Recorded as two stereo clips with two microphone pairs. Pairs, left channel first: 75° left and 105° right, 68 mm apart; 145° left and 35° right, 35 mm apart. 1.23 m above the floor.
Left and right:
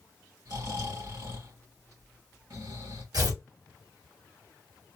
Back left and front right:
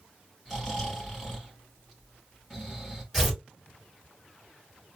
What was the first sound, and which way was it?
Snoring, 120° right.